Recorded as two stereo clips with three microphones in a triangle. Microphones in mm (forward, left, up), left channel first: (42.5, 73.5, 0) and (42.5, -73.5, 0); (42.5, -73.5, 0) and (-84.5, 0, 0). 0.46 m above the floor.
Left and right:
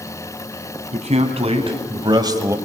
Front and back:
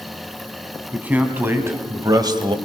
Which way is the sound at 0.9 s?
130° right.